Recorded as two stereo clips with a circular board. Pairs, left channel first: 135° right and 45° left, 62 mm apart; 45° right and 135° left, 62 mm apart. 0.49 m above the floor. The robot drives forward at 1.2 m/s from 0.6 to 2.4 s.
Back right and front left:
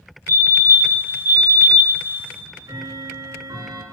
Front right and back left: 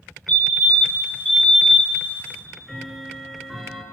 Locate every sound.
0.3 s a fire alarm: 100° right, 2.5 m; by 2.0 s 135° right, 3.5 m
2.3 s ticking: 45° left, 3.5 m